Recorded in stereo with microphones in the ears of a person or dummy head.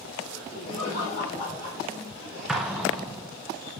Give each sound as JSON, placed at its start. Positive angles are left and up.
{"t": 0.3, "sound": "laughter", "side_deg": 70, "distance_m": 4.0}
{"t": 2.5, "sound": "an explosion", "side_deg": -5, "distance_m": 0.8}